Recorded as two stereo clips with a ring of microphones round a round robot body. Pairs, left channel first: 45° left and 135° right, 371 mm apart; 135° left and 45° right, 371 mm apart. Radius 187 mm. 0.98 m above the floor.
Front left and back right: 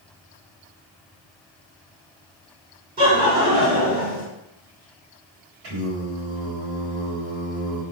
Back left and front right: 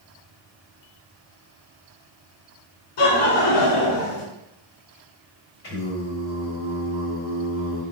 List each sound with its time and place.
3.0 s laughter: 160° left, 3 m
5.6 s singing: 165° right, 3.5 m